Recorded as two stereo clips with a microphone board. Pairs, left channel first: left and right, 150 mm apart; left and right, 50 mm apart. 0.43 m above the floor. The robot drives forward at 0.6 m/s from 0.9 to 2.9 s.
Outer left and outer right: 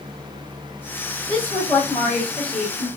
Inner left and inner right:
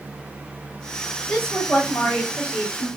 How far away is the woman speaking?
About 1.9 m.